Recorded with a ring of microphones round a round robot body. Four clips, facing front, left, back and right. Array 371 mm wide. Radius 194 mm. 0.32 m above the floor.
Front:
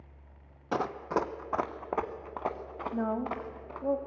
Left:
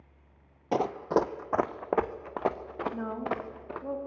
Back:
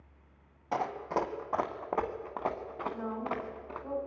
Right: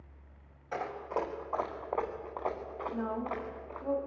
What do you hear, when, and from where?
0.7 s running footsteps: 65° left, 1.0 m; by 3.9 s 95° left, 3 m
2.9 s a woman speaking: 10° left, 2.5 m